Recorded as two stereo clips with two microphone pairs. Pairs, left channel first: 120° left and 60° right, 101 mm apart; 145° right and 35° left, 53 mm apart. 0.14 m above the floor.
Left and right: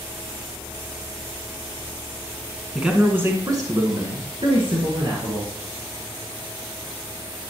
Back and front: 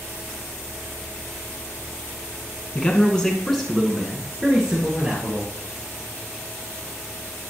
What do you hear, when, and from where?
2.8 s a man speaking: 135° right, 1.4 m; by 5.5 s 30° right, 3 m